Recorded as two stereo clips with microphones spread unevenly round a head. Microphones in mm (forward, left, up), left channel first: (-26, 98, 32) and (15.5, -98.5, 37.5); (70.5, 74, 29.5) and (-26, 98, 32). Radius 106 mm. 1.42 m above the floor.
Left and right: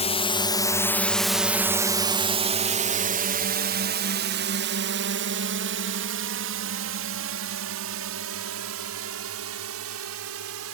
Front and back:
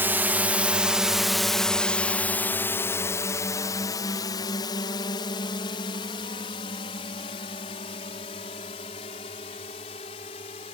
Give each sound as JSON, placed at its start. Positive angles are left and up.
{"t": 0.0, "sound": "a drone", "azimuth_deg": 115}